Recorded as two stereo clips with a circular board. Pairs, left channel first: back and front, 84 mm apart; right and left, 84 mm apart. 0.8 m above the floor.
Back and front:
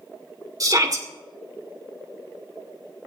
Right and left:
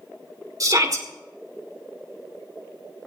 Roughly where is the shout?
Ahead left.